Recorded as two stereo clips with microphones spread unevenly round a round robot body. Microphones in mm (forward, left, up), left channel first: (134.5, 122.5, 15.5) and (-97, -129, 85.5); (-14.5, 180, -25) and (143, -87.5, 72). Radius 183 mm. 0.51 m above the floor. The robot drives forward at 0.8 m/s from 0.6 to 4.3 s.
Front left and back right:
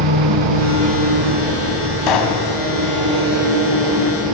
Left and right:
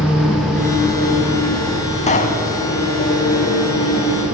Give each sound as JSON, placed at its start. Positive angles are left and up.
{"t": 0.0, "sound": "an engine running", "azimuth_deg": -150, "distance_m": 2.5}
{"t": 2.1, "sound": "a pop", "azimuth_deg": 55, "distance_m": 3.0}